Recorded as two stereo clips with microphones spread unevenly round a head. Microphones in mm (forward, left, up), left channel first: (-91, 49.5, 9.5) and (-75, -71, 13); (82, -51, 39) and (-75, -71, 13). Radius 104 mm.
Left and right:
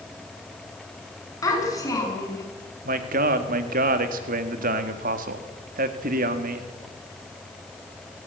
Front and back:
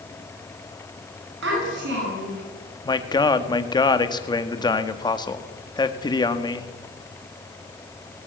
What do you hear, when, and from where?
1.4 s a child speaking: 160° left, 8 m
2.9 s a man speaking: 60° right, 1.9 m